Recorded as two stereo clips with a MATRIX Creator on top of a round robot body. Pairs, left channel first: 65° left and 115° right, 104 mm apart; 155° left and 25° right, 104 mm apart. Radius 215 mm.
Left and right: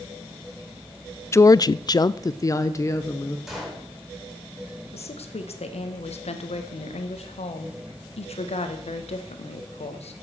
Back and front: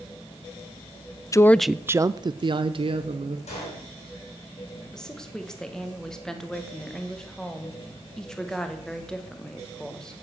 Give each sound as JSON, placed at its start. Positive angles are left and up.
{"t": 1.3, "sound": "a woman speaking", "azimuth_deg": 115, "distance_m": 0.5}
{"t": 3.5, "sound": "a gunshot", "azimuth_deg": 160, "distance_m": 7.0}
{"t": 4.9, "sound": "a woman speaking", "azimuth_deg": 75, "distance_m": 1.6}